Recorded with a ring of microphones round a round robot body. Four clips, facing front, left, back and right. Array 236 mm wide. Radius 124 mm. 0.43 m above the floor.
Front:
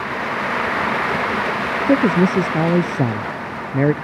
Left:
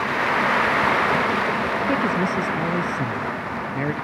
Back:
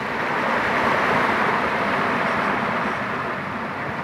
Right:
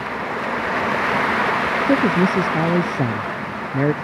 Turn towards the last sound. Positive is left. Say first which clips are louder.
# right 7 dB, front 7 dB
turn(degrees=-25)